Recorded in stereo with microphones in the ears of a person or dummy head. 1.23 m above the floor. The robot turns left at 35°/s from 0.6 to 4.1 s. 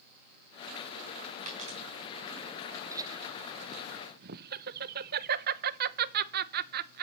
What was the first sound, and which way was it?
A dropped coin, 45° right (ahead or behind).